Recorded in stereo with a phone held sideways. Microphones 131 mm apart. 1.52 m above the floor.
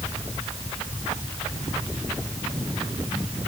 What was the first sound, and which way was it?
Only background noise.